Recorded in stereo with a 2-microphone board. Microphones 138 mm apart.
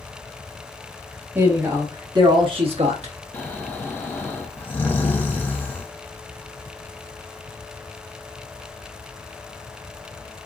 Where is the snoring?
15° left (ahead or behind), 0.7 m.